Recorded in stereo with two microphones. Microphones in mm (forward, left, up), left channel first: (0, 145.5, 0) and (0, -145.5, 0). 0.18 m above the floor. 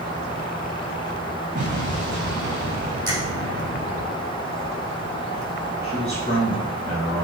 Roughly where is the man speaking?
Right.